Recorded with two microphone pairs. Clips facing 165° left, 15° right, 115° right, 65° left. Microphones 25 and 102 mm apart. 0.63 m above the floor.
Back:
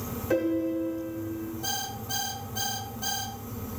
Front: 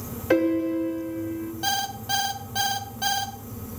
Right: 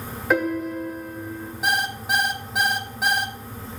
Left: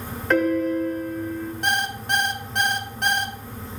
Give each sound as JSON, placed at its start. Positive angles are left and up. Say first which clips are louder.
{"t": 0.3, "sound": "a piano", "louder": "front 5 dB, left 3 dB", "azimuth_deg": -30, "distance_m": 1.2}
{"t": 1.6, "sound": "an alarm clock", "louder": "front 10 dB, right 2 dB", "azimuth_deg": -30, "distance_m": 0.9}